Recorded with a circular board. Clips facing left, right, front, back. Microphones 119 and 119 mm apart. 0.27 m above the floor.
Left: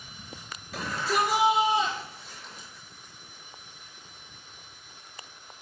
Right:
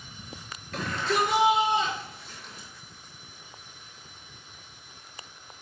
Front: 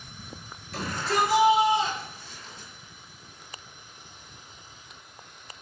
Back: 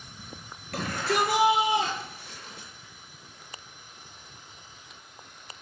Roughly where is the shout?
Behind.